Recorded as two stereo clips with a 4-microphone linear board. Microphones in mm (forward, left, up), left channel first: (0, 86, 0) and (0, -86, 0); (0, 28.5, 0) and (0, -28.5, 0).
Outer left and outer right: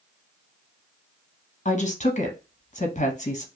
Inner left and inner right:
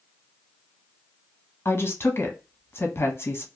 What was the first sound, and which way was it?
A woman speaking, 45° left (ahead or behind).